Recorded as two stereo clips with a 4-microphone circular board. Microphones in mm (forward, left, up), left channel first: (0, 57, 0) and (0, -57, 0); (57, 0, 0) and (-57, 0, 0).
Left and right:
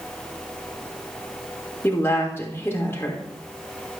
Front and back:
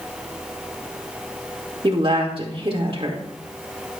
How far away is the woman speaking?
About 1.6 m.